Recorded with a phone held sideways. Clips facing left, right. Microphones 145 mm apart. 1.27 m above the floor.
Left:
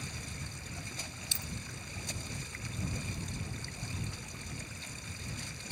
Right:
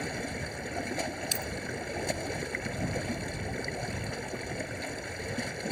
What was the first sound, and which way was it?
Running water, 70° right (ahead or behind).